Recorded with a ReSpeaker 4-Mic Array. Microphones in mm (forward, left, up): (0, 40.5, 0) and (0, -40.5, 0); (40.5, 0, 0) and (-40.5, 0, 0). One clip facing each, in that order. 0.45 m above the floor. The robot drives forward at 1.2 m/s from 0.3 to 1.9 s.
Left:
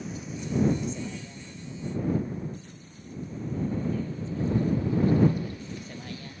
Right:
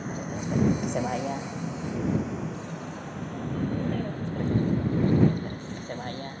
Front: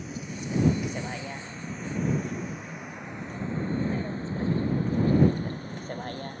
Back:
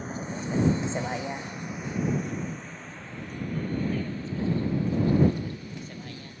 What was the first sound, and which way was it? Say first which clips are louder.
A vehicle: right 4 dB, back 3 dB; 130° right.